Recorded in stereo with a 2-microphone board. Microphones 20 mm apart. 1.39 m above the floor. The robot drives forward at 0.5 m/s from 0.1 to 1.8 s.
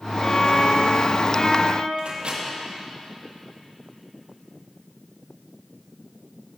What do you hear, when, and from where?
0.2 s a violin: 40° left (ahead or behind), 1.4 m
2.0 s a microwave: 65° right (ahead or behind), 2.5 m